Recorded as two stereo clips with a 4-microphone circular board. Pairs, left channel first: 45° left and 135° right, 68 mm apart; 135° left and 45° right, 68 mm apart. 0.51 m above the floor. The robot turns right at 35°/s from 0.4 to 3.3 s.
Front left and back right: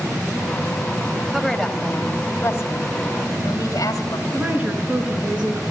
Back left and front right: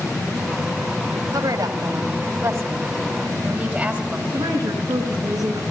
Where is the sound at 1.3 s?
50° right, 2.5 m; by 4.2 s 20° left, 2.5 m.